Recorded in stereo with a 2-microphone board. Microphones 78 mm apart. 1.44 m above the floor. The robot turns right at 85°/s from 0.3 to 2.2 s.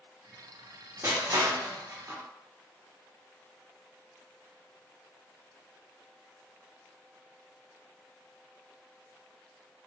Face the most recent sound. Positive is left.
turn(degrees=-25)  # may be behind; listen again after turning